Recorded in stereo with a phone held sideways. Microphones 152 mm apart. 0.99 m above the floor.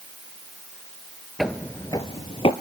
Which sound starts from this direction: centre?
Footsteps, at 1.4 s.